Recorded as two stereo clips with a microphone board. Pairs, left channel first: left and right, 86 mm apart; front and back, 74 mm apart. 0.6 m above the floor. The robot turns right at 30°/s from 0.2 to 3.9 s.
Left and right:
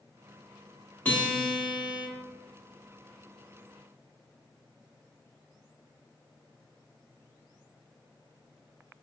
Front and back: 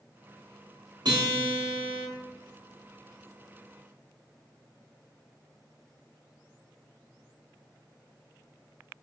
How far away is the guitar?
About 1.0 m.